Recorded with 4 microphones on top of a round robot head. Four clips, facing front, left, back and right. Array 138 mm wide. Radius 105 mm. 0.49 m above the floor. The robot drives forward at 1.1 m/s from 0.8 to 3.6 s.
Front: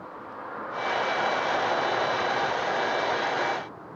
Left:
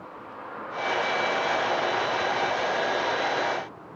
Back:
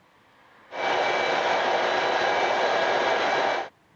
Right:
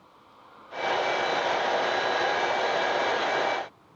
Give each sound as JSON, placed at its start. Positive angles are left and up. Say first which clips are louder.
{"t": 0.0, "sound": "a vehicle", "louder": "left 14 dB, front 19 dB", "azimuth_deg": 35}